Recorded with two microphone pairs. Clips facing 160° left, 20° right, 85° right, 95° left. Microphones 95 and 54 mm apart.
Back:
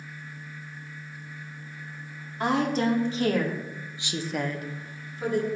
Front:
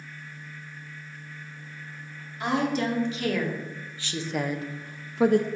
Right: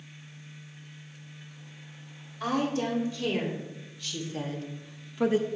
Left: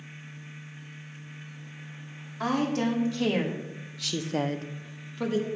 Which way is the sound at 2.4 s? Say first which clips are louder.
Back 1 dB, left 2 dB; 115° left.